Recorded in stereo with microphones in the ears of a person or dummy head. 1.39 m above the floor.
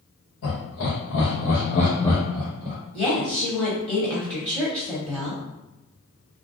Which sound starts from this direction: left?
Laughter, at 0.4 s.